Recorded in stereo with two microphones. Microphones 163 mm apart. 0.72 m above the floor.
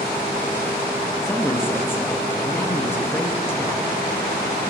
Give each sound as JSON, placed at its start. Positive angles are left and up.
{"t": 1.2, "sound": "a woman speaking", "side_deg": 10, "distance_m": 0.6}